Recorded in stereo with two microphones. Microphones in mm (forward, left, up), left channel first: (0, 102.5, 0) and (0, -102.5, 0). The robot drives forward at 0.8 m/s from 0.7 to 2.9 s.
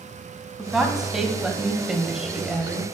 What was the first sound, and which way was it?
A woman speaking, centre (ahead or behind).